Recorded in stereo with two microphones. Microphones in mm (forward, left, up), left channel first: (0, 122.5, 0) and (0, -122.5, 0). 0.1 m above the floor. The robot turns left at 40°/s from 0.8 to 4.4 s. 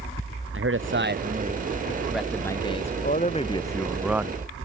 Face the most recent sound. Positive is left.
turn(degrees=-15)